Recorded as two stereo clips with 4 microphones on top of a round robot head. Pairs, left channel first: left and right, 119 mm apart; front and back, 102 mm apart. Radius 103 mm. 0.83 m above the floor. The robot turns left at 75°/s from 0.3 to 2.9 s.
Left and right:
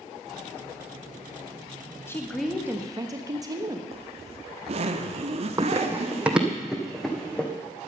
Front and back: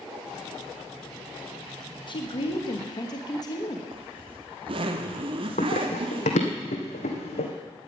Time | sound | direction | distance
2.1 | a woman speaking | 25° left | 1.5 m
3.9 | a zipper | 135° right | 1.0 m
5.6 | running footsteps | 30° right | 1.6 m